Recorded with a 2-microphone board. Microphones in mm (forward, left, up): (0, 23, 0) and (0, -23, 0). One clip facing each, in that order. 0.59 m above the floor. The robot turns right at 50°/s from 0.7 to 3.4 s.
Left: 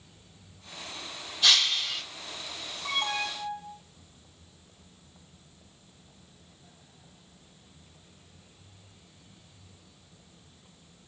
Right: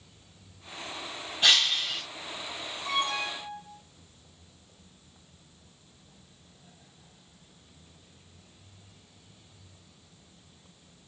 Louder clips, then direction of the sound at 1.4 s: Right 1 dB; 40° right.